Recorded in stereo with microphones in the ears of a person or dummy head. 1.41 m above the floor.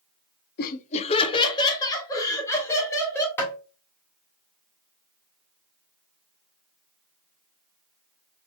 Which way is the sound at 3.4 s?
15° left (ahead or behind).